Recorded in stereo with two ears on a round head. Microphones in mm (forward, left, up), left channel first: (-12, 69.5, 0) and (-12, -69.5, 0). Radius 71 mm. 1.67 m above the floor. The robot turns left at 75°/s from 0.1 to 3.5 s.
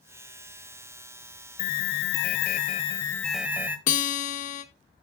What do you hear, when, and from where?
1.6 s an alarm: 130° left, 1.0 m; by 3.8 s 10° right, 1.0 m
3.9 s a guitar: 50° left (ahead or behind), 1.3 m